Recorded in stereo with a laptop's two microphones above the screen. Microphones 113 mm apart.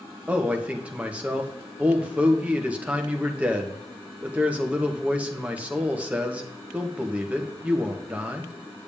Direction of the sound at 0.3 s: 15° right (ahead or behind).